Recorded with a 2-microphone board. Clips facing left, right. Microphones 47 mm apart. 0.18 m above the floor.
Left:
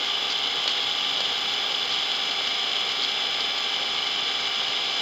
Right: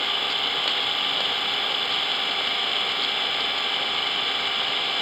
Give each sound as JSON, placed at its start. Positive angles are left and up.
{"t": 0.0, "sound": "an engine running", "side_deg": -10}